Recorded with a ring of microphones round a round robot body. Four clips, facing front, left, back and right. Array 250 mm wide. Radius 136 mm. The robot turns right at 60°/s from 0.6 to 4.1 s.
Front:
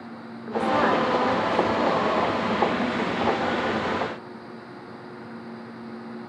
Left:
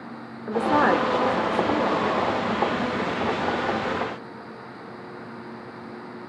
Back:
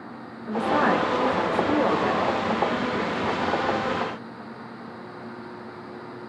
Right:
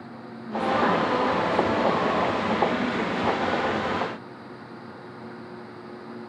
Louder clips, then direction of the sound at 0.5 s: Left 3 dB, even; 80° left.